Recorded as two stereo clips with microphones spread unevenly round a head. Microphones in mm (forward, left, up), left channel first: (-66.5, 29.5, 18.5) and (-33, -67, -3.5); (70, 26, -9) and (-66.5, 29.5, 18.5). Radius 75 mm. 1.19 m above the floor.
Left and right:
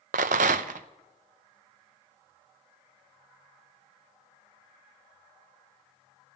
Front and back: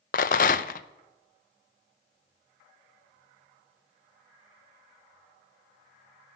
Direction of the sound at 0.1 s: 45° right.